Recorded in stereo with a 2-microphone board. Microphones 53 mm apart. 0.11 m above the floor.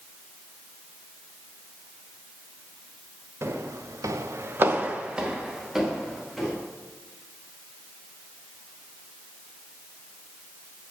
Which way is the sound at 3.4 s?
55° right (ahead or behind).